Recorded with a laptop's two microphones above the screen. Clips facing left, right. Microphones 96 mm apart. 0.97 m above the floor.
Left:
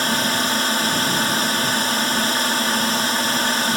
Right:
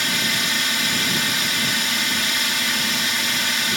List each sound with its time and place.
0.0 s a drone: 35° left (ahead or behind)